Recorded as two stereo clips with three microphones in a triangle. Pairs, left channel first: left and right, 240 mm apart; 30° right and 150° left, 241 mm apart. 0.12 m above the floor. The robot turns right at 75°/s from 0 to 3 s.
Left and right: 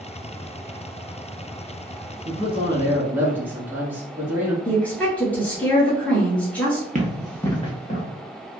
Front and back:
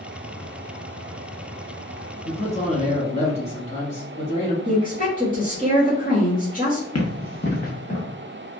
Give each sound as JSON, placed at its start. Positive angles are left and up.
{"t": 2.2, "sound": "a man speaking", "azimuth_deg": -70, "distance_m": 1.2}
{"t": 4.7, "sound": "a woman speaking", "azimuth_deg": 5, "distance_m": 1.7}
{"t": 7.0, "sound": "running footsteps", "azimuth_deg": -30, "distance_m": 0.8}